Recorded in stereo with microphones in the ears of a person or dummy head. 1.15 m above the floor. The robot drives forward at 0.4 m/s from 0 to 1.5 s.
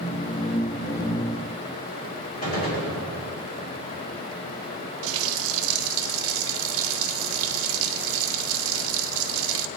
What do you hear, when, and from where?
2.4 s a gunshot: 35° left (ahead or behind), 2.5 m
5.0 s a running tap: 75° right (ahead or behind), 0.6 m